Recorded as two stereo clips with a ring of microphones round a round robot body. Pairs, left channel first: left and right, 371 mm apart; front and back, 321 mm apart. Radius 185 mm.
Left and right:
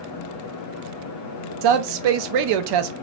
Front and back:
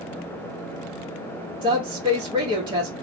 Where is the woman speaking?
105° right, 0.6 m.